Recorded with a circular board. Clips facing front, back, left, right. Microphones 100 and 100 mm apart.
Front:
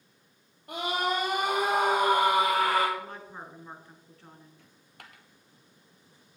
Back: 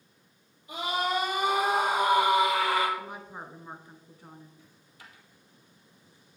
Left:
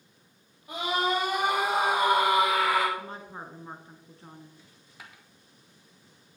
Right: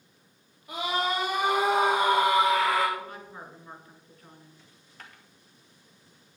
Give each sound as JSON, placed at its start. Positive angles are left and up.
{"t": 0.7, "sound": "a scream", "azimuth_deg": 10, "distance_m": 4.0}
{"t": 3.0, "sound": "a woman speaking", "azimuth_deg": 115, "distance_m": 1.4}
{"t": 4.6, "sound": "a dropped coin", "azimuth_deg": 10, "distance_m": 1.5}